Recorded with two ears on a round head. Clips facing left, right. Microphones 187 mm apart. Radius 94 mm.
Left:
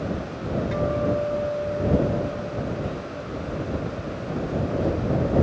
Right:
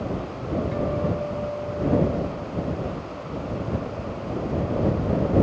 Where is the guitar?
75° left (ahead or behind).